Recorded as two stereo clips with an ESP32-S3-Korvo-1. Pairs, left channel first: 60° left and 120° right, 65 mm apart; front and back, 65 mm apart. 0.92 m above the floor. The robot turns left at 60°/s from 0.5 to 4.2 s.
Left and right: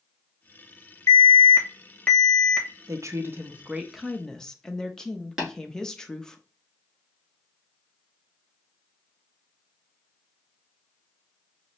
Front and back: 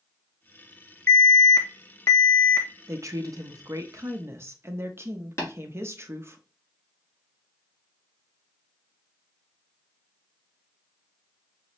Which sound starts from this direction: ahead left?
An alarm, at 1.1 s.